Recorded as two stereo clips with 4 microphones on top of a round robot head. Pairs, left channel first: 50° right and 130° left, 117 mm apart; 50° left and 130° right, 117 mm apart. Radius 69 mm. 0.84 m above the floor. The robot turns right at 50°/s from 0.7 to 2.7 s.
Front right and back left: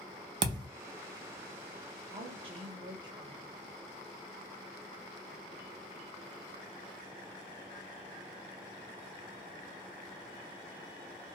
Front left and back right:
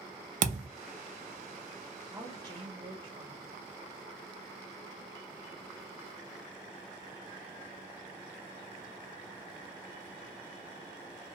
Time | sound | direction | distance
0.4 | a thud | 170° right | 0.5 m
2.1 | a woman speaking | 155° left | 1.1 m